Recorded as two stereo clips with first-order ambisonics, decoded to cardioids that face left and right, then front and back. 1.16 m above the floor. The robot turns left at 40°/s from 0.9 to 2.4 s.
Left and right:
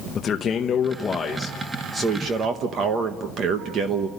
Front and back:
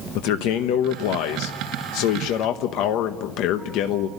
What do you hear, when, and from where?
0.1 s a man speaking: 25° left, 1.0 m; by 4.1 s 35° right, 1.0 m